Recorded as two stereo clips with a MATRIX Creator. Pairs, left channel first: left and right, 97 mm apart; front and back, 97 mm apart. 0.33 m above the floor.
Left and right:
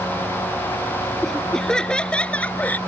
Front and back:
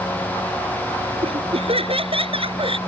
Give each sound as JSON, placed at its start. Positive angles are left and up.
{"t": 1.2, "sound": "laughter", "azimuth_deg": 175}